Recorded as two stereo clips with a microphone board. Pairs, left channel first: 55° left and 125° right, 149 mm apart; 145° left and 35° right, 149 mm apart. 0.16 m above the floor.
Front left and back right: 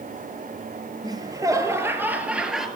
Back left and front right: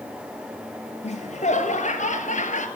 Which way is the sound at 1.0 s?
175° left.